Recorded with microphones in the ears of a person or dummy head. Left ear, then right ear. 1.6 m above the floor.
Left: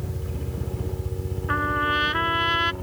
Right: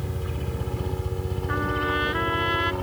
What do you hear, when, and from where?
0.0 s a helicopter: 35° right (ahead or behind)
1.5 s a trumpet: 25° left (ahead or behind)